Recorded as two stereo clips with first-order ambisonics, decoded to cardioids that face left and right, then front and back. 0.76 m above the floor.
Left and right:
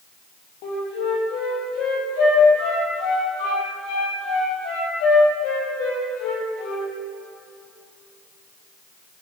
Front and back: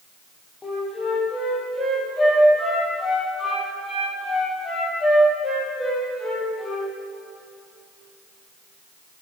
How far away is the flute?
About 4 m.